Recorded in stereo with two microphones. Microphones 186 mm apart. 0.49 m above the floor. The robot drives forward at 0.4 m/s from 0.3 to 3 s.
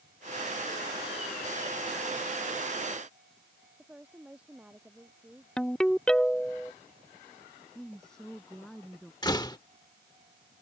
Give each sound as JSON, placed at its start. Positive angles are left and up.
{"t": 3.8, "sound": "a woman speaking", "side_deg": -5}
{"t": 5.6, "sound": "a ringtone", "side_deg": 5}
{"t": 7.8, "sound": "a woman speaking", "side_deg": 5}
{"t": 9.2, "sound": "a door slam", "side_deg": 20}